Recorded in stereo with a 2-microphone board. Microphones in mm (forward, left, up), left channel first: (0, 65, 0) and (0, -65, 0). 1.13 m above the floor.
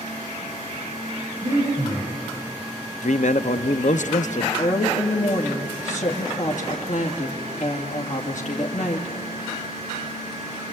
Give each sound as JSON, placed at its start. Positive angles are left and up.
{"t": 1.4, "sound": "breathing", "side_deg": -45, "distance_m": 6.0}
{"t": 3.0, "sound": "a man speaking", "side_deg": 70, "distance_m": 0.8}
{"t": 4.6, "sound": "a woman speaking", "side_deg": 75, "distance_m": 2.5}